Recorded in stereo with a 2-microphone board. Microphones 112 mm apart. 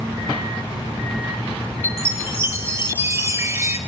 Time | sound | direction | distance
1.8 | a chime | 25° right (ahead or behind) | 0.5 m